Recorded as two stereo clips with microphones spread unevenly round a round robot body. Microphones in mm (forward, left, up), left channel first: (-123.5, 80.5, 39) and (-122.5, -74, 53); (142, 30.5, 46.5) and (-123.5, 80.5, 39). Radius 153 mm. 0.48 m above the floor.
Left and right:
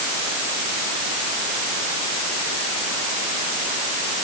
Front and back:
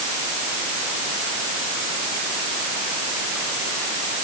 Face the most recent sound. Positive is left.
No sound to turn to.